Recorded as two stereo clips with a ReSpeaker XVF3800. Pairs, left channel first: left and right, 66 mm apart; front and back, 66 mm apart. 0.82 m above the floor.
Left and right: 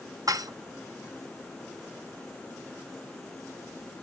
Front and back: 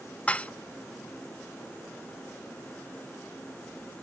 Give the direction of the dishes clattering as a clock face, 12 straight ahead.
2 o'clock.